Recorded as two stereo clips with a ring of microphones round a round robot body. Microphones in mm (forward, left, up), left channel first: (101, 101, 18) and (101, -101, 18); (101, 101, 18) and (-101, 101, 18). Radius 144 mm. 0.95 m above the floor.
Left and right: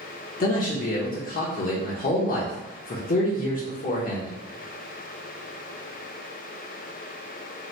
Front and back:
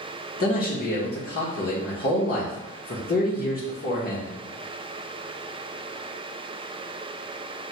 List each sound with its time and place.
0.4 s a man speaking: 45° left, 0.8 m